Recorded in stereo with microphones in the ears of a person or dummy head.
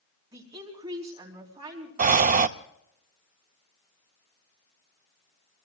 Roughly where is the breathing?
Right.